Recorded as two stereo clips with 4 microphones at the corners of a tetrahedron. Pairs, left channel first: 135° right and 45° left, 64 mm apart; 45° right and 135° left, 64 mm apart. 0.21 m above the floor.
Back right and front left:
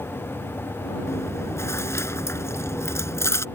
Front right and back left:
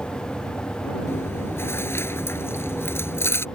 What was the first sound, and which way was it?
Chewing, 90° right.